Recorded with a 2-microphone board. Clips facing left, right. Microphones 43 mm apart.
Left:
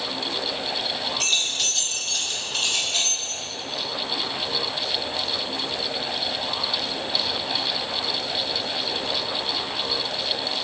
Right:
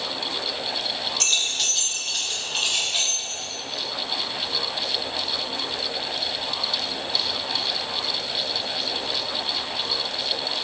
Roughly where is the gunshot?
No gunshot in this recording.